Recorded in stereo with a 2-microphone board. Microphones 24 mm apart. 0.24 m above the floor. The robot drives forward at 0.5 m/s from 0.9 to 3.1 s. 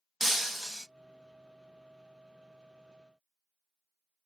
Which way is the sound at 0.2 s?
5° right (ahead or behind).